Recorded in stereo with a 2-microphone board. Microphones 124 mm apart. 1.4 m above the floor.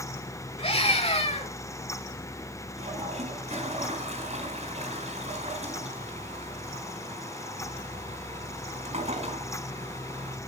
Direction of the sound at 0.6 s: 45° left (ahead or behind).